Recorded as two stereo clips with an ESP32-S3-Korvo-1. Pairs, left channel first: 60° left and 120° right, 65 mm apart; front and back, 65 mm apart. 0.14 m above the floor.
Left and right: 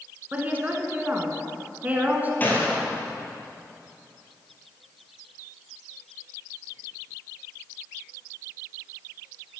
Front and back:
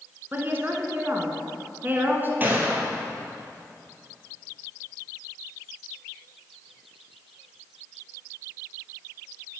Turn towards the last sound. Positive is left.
turn(degrees=120)